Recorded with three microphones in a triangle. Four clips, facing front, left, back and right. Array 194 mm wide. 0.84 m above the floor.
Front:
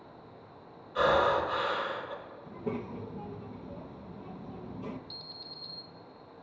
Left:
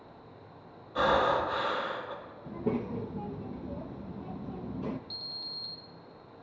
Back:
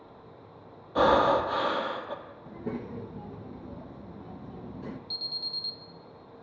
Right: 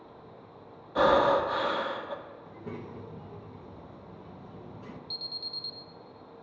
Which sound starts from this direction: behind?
An alarm, at 5.1 s.